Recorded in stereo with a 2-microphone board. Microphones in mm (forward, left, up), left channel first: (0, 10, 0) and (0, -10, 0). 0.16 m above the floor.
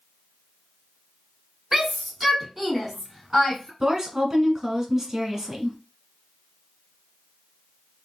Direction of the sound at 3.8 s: 25° right (ahead or behind).